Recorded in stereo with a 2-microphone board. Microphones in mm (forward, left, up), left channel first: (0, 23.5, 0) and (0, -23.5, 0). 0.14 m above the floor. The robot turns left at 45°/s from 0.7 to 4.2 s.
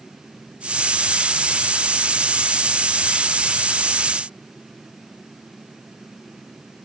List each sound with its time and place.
Only background noise.